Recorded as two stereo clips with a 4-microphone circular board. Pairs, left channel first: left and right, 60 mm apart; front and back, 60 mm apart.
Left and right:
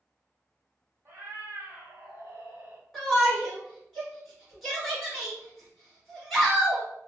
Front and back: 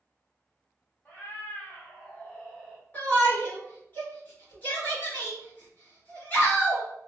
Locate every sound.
1.1 s a cat meowing: 60° right, 1.5 m; by 2.8 s 90° right, 0.7 m
2.9 s a shout: 5° right, 1.6 m